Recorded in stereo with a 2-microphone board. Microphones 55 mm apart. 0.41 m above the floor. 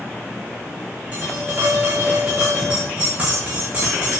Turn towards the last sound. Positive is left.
turn(degrees=-20)  # may be behind; listen again after turning